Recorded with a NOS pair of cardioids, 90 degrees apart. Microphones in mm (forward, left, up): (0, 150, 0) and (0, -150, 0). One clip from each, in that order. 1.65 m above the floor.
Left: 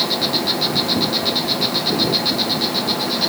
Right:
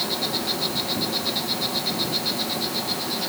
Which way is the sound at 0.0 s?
50° left.